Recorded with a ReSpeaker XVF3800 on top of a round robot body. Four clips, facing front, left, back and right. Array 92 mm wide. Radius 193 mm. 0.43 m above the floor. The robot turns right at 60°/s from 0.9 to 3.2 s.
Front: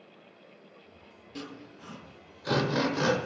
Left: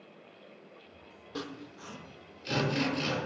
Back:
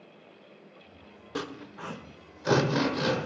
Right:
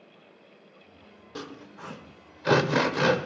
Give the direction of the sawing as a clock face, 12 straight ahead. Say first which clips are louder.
Right 1 dB, back 6 dB; 6 o'clock.